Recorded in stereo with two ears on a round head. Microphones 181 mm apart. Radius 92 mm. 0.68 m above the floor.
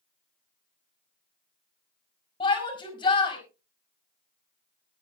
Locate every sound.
2.4 s a shout: 25° left (ahead or behind), 4.5 m